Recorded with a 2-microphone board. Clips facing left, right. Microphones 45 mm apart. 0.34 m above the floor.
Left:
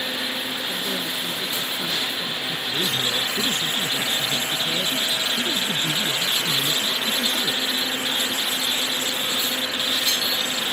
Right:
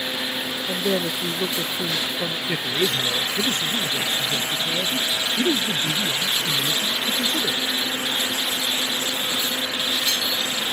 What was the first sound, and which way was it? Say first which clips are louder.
A woman speaking: right 4 dB; 55° right (ahead or behind).